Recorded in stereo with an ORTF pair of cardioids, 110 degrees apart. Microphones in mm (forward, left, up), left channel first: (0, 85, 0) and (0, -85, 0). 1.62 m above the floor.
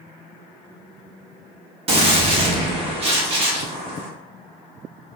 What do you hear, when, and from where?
1.9 s a gunshot: 35° right, 0.7 m